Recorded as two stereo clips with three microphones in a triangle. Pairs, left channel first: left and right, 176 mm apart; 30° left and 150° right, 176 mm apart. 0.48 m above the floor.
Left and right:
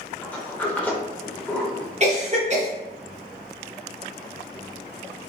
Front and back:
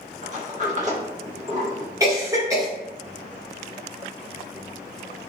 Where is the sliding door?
170° left, 0.6 m.